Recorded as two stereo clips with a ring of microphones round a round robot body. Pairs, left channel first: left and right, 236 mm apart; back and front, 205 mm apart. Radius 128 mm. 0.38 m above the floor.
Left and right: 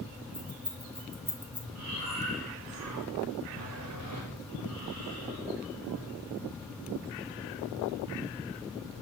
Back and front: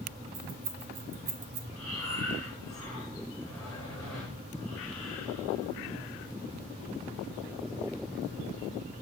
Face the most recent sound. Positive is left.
turn(degrees=-105)